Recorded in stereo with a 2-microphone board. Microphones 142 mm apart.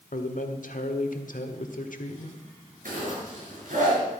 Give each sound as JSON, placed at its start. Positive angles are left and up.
{"t": 0.1, "sound": "a man speaking", "side_deg": 70, "distance_m": 1.5}
{"t": 2.9, "sound": "a zipper", "side_deg": -70, "distance_m": 6.0}